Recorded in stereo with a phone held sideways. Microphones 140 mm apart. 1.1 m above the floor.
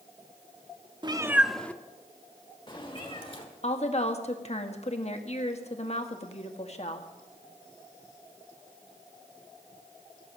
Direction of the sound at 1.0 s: 35° right (ahead or behind).